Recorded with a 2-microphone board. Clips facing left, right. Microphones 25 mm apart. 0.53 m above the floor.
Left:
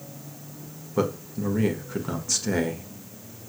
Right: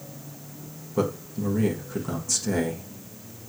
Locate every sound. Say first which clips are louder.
1.0 s a man speaking: even; 20° left (ahead or behind), 1.4 m